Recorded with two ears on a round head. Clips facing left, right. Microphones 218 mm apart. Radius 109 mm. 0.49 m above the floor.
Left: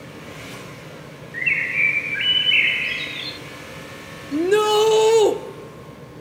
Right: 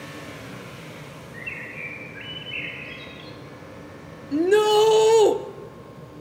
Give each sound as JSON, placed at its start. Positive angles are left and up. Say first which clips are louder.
{"t": 1.3, "sound": "a bird", "louder": "left 3 dB", "side_deg": 75, "distance_m": 0.5}
{"t": 4.3, "sound": "a shout", "louder": "even", "side_deg": 5, "distance_m": 1.0}